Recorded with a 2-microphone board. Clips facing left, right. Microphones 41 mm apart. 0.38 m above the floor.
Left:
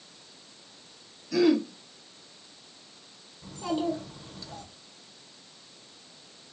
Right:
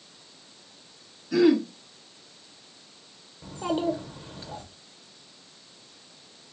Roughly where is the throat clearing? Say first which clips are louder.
Right 3 dB; centre.